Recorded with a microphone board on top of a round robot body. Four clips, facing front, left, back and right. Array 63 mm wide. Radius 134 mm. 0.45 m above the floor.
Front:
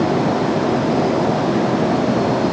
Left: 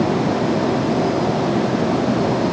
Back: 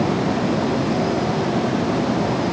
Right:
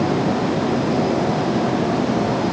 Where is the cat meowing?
I don't hear a cat meowing.